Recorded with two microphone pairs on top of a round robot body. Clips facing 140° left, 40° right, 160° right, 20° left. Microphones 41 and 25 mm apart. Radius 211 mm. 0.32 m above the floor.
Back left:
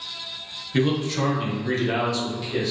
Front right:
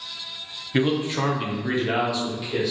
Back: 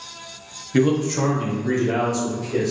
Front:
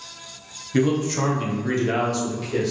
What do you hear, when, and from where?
0.7 s a man speaking: 75° right, 0.9 m; by 2.7 s 35° left, 1.5 m